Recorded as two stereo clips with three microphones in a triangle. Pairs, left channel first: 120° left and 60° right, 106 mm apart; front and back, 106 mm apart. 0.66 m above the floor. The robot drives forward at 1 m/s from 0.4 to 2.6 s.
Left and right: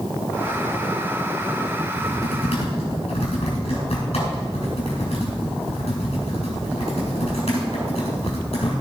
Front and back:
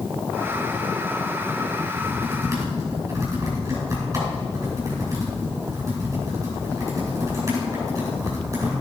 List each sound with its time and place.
1.9 s typing on a keyboard: 115° left, 5.5 m; by 8.7 s 120° left, 6 m